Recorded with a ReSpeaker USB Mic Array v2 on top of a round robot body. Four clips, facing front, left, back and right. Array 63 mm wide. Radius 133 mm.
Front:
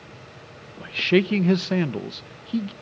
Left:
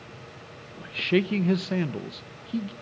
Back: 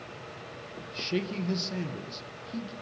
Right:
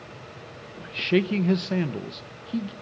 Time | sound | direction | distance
0.8 | a man speaking | straight ahead | 1.2 m